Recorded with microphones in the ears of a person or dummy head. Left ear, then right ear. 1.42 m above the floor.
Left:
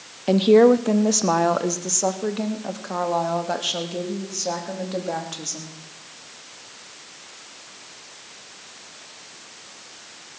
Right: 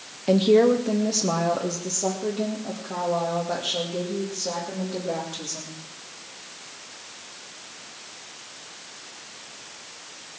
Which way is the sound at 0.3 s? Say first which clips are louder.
Left 3 dB; 15° left (ahead or behind).